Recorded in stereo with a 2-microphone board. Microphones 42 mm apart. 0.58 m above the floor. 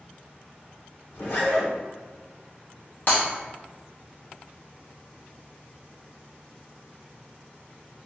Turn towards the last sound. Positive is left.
turn(degrees=45)  # may be behind; listen again after turning